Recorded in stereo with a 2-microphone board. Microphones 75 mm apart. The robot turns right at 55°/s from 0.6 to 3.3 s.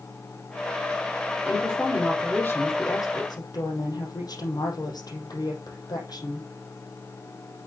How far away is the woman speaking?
About 5 m.